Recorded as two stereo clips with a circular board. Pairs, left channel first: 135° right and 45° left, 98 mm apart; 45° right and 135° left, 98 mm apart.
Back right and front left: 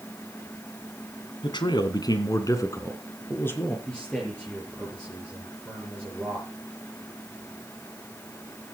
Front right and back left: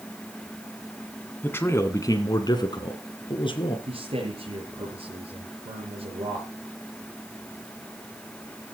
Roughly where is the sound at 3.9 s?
Behind left.